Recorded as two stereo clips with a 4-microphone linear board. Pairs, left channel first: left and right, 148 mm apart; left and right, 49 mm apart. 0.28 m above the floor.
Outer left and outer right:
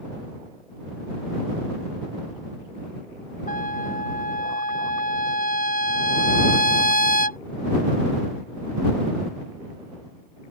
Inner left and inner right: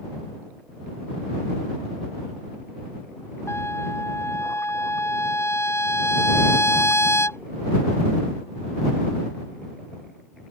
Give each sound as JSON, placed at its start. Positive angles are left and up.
{"t": 3.5, "sound": "a trumpet", "side_deg": 65}